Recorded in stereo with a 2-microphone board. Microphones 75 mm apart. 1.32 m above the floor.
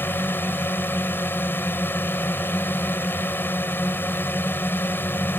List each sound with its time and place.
0.0 s a drone: 30° left (ahead or behind)